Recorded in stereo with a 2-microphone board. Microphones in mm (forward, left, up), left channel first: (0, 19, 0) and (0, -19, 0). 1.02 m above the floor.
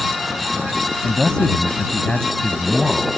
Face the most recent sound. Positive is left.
turn(degrees=15)  # may be behind; listen again after turning